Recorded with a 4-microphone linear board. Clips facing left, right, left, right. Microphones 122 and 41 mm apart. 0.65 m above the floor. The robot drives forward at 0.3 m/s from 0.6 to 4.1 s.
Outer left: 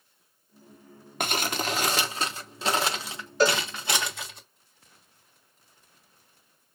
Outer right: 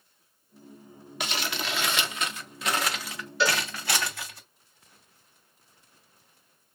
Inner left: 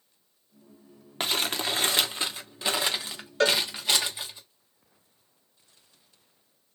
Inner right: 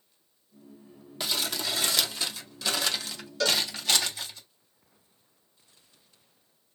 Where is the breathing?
No breathing in this recording.